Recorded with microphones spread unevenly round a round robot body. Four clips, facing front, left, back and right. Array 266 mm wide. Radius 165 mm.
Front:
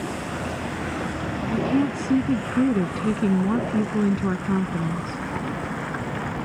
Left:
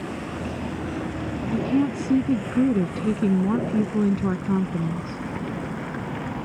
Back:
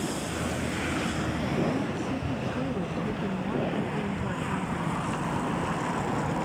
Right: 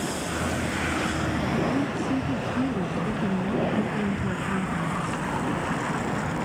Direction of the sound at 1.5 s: 65° left.